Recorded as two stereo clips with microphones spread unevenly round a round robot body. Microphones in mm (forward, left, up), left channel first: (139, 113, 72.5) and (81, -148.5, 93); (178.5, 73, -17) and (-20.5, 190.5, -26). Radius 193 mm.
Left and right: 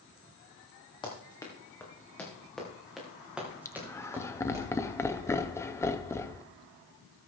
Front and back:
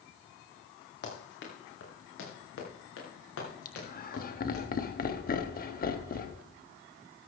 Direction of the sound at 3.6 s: 5° left.